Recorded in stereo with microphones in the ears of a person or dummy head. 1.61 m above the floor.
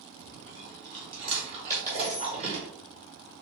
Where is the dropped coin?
10° right (ahead or behind), 2 m.